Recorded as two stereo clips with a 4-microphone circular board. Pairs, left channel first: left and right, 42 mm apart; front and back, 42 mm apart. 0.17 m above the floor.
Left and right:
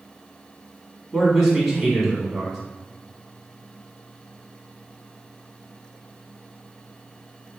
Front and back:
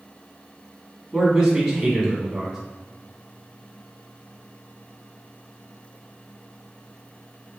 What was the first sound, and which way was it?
A man speaking, 150° right.